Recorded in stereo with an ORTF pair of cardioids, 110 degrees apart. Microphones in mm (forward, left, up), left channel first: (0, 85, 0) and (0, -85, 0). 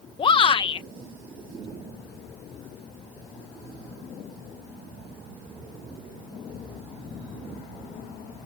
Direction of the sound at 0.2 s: 30° left.